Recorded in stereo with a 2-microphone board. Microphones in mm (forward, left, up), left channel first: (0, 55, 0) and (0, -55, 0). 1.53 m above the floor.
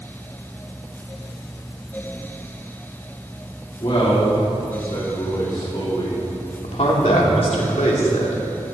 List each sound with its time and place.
3.8 s a man speaking: 50° left (ahead or behind), 4.5 m
6.6 s a man speaking: 80° left, 3.5 m